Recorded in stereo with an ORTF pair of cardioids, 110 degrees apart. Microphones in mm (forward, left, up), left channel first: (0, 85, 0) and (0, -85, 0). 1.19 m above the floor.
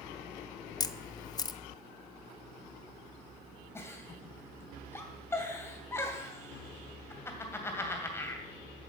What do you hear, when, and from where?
0.8 s a camera shutter: 25° left, 0.7 m
3.8 s a giggle: 15° left, 2.5 m